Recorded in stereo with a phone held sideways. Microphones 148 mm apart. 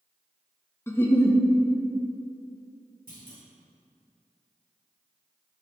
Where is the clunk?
80° right, 2 m.